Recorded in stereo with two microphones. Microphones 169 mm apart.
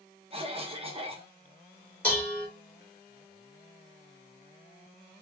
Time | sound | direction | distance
0.3 | a cough | 35° right (ahead or behind) | 1.1 m
2.0 | dishes clattering | 10° left (ahead or behind) | 1.4 m